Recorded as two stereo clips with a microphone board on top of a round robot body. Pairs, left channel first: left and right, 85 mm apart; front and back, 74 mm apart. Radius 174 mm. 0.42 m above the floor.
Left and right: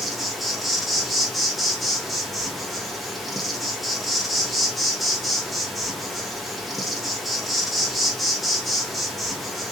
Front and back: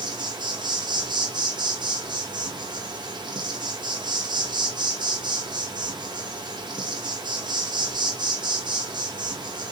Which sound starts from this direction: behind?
An insect, at 0.0 s.